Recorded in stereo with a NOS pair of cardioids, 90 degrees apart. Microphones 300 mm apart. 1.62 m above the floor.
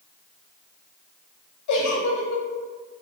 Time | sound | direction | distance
1.7 | a giggle | 65° left | 0.8 m